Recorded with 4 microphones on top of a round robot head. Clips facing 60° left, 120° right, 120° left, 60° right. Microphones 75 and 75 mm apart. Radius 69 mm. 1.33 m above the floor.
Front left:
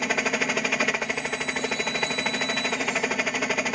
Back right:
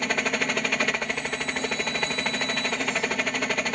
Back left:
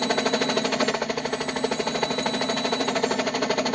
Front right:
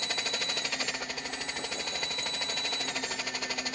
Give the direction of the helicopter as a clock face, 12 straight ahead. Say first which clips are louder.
Front left 1 dB, back left 13 dB; 7 o'clock.